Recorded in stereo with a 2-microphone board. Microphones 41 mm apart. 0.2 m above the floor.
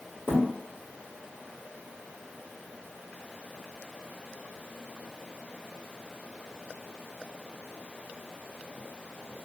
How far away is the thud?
About 1.8 m.